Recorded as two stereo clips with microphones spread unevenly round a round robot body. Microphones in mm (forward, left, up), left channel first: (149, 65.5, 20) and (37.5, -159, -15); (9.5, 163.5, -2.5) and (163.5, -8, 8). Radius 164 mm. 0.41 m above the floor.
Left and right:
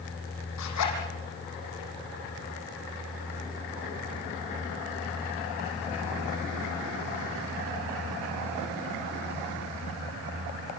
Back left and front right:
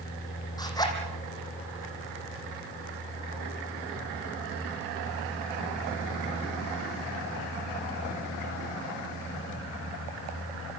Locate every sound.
0.6 s a zipper: 60° left, 6 m